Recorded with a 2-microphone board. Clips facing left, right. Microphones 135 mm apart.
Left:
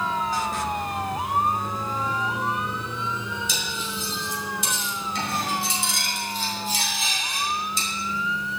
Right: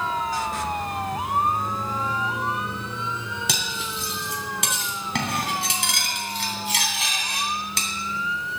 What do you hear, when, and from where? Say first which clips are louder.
3.5 s cutlery clinking: even; 80° right, 2.5 m